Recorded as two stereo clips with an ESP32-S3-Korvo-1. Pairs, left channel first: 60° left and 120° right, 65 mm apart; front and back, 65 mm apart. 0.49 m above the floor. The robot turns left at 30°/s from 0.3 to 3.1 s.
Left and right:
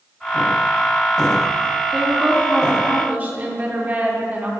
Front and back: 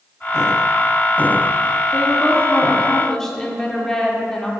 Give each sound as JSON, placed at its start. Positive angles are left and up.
{"t": 1.9, "sound": "a woman speaking", "azimuth_deg": -45, "distance_m": 0.8}